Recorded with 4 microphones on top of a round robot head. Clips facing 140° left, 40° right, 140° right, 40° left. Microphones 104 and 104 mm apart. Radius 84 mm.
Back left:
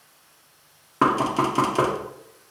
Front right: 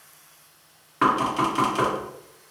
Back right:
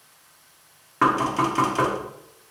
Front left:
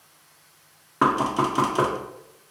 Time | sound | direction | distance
1.0 | knocking | 105° left | 0.6 m